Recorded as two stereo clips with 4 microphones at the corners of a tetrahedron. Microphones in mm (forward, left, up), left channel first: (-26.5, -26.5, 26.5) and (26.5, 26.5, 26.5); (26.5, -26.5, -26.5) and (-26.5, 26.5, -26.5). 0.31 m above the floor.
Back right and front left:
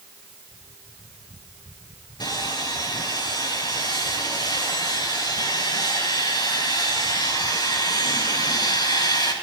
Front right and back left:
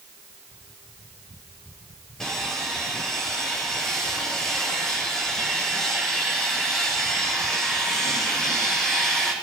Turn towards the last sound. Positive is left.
turn(degrees=-125)